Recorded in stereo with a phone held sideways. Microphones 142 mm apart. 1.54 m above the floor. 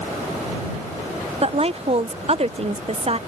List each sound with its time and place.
1.4 s a woman speaking: 45° right (ahead or behind)